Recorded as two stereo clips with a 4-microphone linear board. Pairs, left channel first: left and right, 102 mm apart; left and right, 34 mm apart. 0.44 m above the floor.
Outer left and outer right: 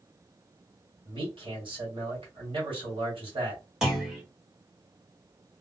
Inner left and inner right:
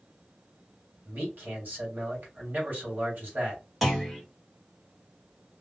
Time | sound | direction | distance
1.1 | a man speaking | 60° right (ahead or behind) | 2.5 m
3.8 | a clunk | 5° right (ahead or behind) | 1.7 m